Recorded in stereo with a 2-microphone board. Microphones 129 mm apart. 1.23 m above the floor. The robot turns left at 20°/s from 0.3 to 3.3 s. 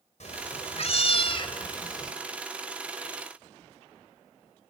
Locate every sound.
0.2 s a cat meowing: 65° left, 3 m; by 2.1 s 30° left, 3 m